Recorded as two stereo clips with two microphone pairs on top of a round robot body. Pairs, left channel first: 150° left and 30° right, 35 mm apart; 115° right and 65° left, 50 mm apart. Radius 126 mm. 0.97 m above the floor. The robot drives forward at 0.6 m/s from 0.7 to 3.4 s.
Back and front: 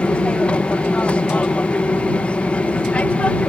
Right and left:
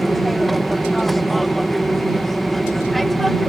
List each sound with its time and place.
0.0 s an aircraft: 155° left